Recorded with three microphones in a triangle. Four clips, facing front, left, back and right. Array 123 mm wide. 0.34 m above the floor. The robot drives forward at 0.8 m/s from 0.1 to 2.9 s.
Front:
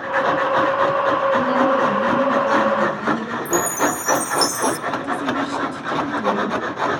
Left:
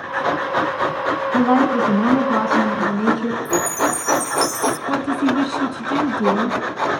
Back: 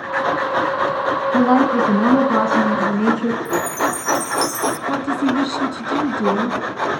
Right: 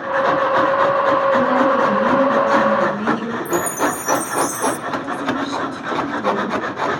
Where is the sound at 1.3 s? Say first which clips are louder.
Right 1 dB, back 3 dB; 145° left, 3 m; by 3.4 s 155° left, 4 m.